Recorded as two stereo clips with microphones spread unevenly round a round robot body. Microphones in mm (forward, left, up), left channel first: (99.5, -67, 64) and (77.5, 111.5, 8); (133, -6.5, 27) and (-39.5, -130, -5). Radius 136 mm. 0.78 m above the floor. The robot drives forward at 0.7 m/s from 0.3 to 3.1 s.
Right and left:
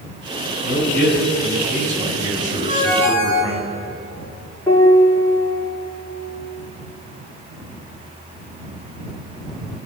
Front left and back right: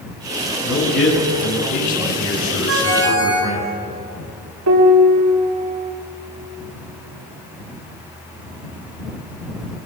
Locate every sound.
0.6 s a man speaking: 45° left, 10 m; by 3.7 s 55° left, 9 m
2.7 s a ringtone: 165° left, 8 m
4.7 s a piano: 165° right, 3.5 m